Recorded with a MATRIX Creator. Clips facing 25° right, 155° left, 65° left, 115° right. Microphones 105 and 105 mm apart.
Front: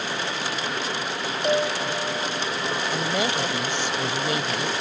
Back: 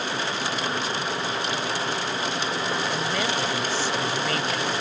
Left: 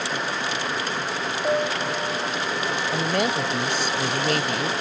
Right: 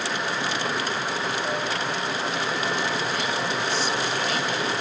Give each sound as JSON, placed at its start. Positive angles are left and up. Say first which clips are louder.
{"t": 1.4, "sound": "a piano", "louder": "front 5 dB, left 4 dB", "azimuth_deg": 10}
{"t": 2.9, "sound": "a woman speaking", "louder": "front 1 dB, left 4 dB", "azimuth_deg": 45}